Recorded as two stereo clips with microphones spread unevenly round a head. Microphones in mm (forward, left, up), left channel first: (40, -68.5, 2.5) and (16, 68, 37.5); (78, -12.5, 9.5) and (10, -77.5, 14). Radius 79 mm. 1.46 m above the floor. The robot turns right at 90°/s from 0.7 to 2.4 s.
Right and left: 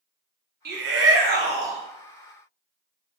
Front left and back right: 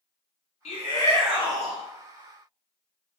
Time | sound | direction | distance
0.7 | a shout | 85° left | 0.8 m